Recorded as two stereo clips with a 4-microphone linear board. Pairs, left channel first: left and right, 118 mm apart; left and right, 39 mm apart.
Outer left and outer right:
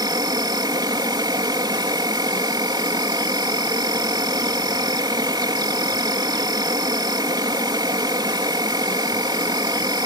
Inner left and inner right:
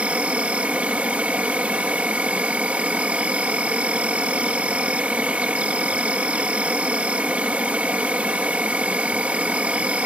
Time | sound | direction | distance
0.0 | an insect | 35° right (ahead or behind) | ?